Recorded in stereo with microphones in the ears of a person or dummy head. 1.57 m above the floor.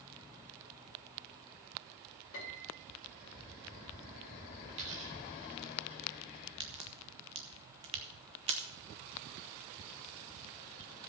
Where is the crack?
25° right (ahead or behind), 0.8 m.